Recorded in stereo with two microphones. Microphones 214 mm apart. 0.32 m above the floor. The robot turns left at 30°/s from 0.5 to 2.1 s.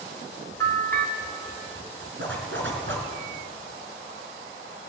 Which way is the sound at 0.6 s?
10° left (ahead or behind).